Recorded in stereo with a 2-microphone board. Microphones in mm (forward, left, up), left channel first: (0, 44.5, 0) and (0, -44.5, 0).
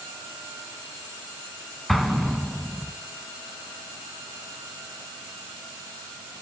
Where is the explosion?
Centre (ahead or behind), 0.6 m.